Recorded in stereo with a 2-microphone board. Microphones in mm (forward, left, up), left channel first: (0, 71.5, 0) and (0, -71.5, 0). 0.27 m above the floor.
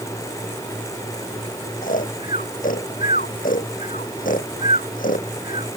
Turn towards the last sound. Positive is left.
turn(degrees=85)